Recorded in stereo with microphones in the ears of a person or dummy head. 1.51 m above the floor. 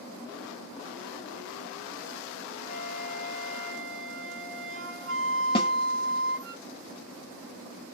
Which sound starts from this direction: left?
A snare drum, at 5.5 s.